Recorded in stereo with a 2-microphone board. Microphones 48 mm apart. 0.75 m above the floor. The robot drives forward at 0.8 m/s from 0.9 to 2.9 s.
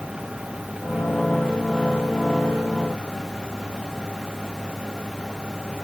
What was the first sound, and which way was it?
Only background noise.